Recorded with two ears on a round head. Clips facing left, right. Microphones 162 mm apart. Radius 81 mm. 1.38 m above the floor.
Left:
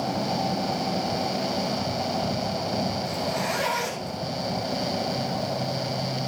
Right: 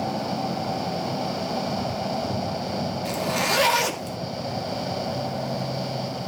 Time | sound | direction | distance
3.0 | a zipper | 75° right (ahead or behind) | 1.9 m